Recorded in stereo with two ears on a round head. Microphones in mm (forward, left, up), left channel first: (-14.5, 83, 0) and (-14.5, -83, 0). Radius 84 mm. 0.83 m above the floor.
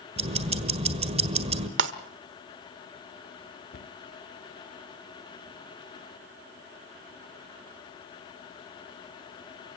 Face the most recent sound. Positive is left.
turn(degrees=55)  # may be behind; listen again after turning